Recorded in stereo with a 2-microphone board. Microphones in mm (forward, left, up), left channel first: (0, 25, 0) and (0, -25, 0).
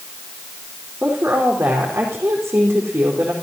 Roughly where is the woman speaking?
Right.